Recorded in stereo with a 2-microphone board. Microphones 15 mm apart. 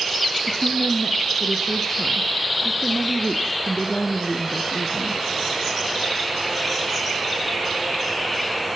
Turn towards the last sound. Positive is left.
turn(degrees=25)  # may be behind; listen again after turning